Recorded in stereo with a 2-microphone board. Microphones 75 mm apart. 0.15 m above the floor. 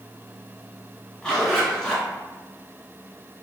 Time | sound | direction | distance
1.2 | a zipper | 10° left (ahead or behind) | 1.6 m